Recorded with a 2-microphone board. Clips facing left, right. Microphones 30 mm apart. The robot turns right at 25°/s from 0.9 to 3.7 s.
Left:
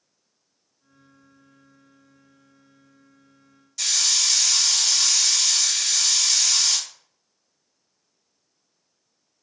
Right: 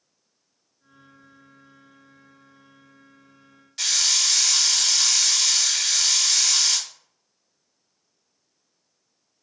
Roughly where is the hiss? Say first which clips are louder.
Right 1 dB; right.